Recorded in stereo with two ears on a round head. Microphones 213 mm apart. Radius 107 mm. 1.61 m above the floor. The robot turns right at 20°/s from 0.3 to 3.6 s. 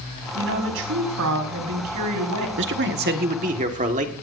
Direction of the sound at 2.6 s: 50° right (ahead or behind).